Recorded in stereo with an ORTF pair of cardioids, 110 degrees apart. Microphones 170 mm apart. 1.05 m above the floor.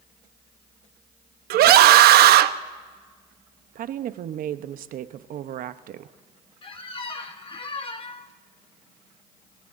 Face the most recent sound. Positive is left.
turn(degrees=30)